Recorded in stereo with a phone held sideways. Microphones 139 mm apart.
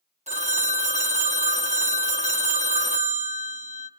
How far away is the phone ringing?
About 1.2 m.